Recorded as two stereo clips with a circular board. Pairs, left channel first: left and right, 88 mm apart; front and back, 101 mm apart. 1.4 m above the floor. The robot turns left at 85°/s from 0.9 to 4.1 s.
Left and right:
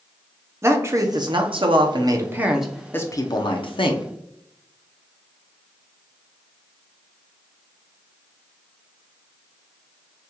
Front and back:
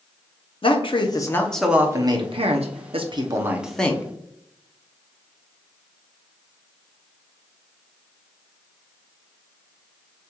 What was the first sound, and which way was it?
A man speaking, 30° right.